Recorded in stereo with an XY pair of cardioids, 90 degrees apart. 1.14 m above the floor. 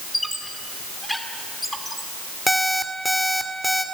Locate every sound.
0.1 s a squeak: 10° left, 3 m
2.5 s an alarm clock: 5° left, 2.5 m